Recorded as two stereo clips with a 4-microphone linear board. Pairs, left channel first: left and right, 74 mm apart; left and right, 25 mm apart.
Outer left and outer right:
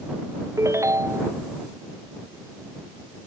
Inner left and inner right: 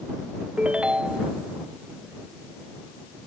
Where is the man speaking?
I don't hear a man speaking.